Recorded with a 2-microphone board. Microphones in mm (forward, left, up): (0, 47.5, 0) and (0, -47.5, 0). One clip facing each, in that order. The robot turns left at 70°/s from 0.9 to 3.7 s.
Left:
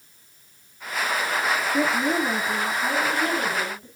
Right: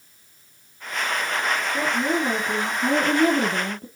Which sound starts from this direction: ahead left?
A woman speaking, at 1.7 s.